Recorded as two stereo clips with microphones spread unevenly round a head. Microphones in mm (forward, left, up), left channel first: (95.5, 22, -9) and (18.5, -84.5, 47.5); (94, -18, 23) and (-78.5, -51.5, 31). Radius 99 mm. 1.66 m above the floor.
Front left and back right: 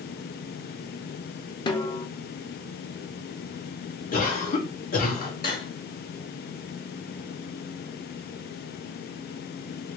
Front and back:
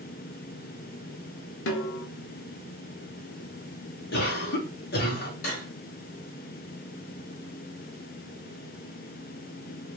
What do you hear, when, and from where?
1.7 s a snare drum: straight ahead, 0.7 m
4.1 s a cough: 50° left, 1.4 m
5.4 s cutlery clinking: 35° left, 1.8 m